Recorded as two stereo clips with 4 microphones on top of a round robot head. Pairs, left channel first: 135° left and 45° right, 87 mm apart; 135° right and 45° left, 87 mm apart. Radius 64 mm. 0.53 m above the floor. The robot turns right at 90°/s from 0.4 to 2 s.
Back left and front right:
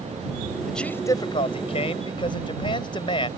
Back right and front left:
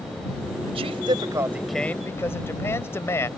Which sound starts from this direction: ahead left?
A man speaking, at 0.7 s.